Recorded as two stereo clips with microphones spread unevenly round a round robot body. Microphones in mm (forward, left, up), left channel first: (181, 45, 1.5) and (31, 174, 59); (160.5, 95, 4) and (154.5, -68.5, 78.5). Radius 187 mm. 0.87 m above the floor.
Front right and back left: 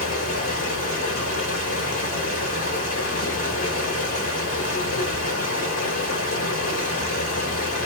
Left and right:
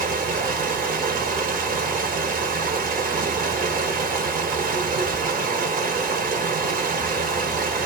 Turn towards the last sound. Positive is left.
turn(degrees=-60)